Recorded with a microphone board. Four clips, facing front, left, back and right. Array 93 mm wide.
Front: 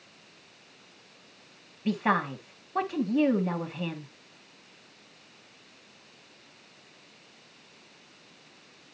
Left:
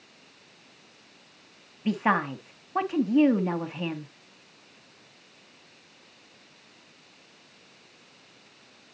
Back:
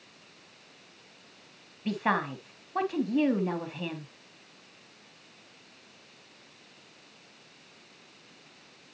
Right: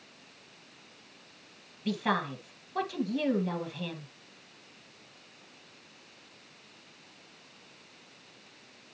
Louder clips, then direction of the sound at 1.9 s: Left 5 dB, front 2 dB; 85° left.